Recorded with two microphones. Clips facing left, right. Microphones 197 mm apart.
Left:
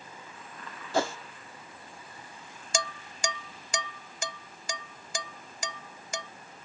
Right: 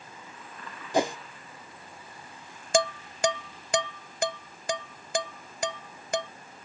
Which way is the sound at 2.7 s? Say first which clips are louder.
Right 10 dB; 60° right (ahead or behind).